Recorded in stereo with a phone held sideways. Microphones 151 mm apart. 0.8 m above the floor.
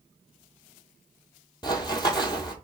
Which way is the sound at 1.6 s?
30° left (ahead or behind).